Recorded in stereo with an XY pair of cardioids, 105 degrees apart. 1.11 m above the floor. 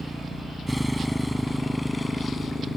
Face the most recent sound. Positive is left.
turn(degrees=20)